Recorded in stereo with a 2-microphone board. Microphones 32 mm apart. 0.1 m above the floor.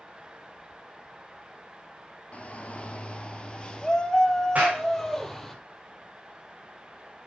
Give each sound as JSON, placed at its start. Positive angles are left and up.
{"t": 2.3, "sound": "a shout", "side_deg": 45, "distance_m": 2.5}
{"t": 4.5, "sound": "a clap", "side_deg": -55, "distance_m": 7.5}